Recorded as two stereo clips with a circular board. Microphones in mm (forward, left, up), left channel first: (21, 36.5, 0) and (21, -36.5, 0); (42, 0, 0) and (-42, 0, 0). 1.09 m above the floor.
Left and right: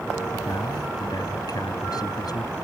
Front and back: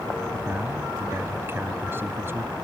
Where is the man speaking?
120° left.